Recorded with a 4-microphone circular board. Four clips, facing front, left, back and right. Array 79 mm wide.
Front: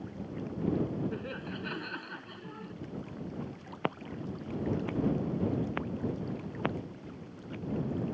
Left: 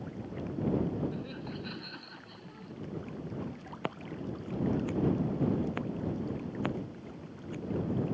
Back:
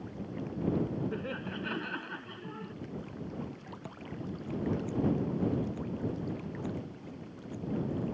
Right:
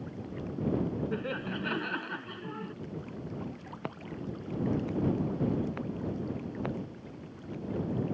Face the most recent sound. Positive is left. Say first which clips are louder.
# left 1 dB, front 7 dB
turn(degrees=15)